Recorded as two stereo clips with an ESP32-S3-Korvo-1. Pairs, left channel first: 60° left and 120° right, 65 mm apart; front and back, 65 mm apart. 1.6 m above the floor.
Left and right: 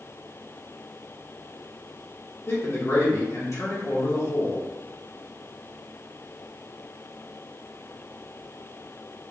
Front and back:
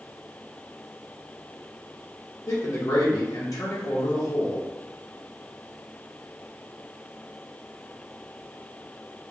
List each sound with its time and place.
2.5 s a man speaking: 20° left, 0.8 m